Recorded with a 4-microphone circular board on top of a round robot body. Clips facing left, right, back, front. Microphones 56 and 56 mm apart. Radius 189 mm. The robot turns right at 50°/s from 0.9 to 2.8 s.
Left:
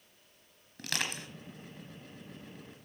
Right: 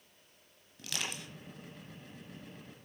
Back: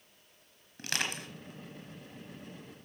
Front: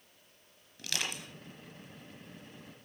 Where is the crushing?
130° left, 2.5 m; by 1.3 s 150° left, 2.5 m.